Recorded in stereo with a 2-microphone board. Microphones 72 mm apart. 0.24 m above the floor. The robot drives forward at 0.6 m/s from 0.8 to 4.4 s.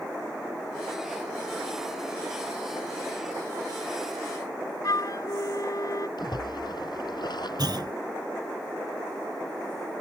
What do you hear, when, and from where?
4.8 s a flute: 60° left (ahead or behind)
6.2 s a splash: 75° left (ahead or behind)
7.6 s a clunk: 70° right (ahead or behind)